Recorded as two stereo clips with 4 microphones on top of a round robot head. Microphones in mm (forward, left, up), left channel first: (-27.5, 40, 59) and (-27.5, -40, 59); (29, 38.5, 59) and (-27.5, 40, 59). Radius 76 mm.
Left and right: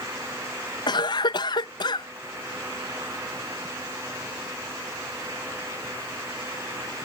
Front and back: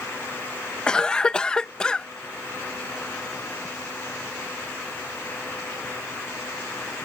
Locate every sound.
0.9 s a cough: 75° left